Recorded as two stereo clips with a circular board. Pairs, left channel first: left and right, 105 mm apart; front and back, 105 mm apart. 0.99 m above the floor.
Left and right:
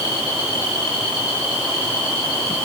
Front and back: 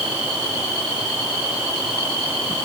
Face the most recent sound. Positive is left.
No sound to turn to.